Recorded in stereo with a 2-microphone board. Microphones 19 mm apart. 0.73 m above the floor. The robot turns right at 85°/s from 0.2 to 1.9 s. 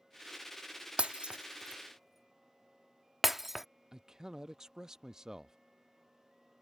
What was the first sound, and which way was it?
Breaking glass, 75° right (ahead or behind).